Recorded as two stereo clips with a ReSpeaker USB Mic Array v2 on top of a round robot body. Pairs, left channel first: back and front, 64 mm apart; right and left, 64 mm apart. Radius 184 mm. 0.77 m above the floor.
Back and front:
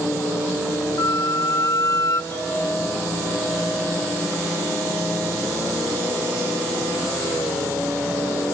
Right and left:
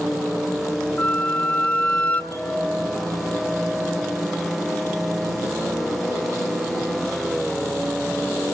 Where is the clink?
130° right, 7 m.